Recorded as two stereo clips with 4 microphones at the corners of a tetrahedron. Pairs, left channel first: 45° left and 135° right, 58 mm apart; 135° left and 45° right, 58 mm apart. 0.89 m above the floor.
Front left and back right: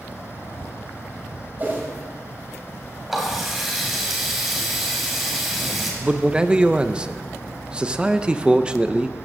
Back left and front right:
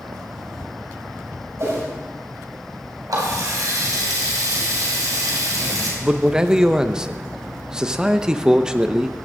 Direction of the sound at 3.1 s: 50° right.